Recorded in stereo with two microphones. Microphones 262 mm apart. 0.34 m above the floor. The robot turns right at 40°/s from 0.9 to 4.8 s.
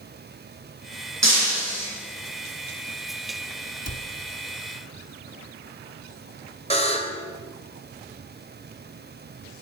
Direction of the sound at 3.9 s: 65° left (ahead or behind).